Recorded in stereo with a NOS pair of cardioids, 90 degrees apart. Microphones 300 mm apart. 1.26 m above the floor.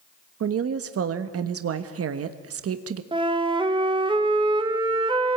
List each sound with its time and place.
0.4 s a woman speaking: 50° right, 1.3 m
3.1 s a flute: 15° right, 1.7 m